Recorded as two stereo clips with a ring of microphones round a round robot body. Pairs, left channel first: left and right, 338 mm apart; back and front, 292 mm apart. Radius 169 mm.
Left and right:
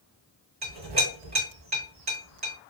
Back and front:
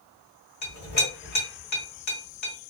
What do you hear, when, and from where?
0.6 s a clink: 150° right, 1.1 m